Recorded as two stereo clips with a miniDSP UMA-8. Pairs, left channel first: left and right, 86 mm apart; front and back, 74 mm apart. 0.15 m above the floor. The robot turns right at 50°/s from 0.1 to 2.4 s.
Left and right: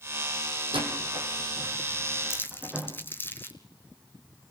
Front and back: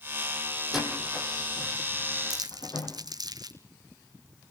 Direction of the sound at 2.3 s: 150° left.